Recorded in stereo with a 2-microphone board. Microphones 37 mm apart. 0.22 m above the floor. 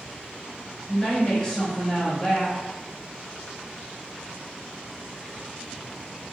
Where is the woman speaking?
20° left (ahead or behind), 0.9 m.